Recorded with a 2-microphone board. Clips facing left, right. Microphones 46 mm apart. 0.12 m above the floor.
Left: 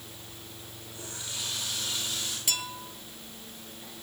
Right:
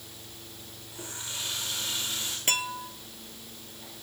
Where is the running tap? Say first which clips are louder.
Right 1 dB; 25° right (ahead or behind), 9 m.